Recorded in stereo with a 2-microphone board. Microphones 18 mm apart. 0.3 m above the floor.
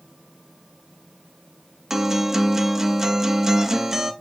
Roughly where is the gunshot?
No gunshot in this recording.